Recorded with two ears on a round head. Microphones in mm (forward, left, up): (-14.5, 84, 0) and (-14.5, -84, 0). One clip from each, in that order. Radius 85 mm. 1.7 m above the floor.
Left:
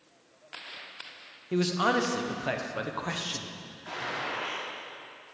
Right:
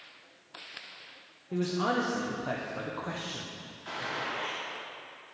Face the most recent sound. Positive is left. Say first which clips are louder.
# left 1 dB
turn(degrees=-5)  # may be behind; listen again after turning